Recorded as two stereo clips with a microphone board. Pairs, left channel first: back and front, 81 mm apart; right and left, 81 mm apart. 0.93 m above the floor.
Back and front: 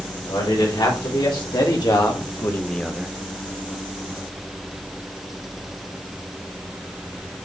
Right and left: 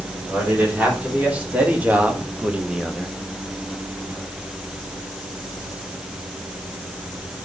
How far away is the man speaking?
About 4 m.